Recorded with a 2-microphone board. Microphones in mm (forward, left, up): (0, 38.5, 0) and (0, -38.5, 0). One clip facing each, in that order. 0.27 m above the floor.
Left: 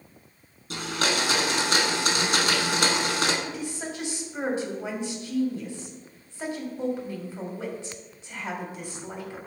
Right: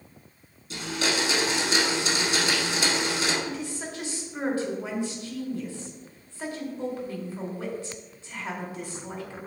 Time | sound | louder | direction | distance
0.7 | a blender | left 1 dB | 60° left (ahead or behind) | 1.2 m
3.5 | a woman speaking | even | 20° left (ahead or behind) | 1.6 m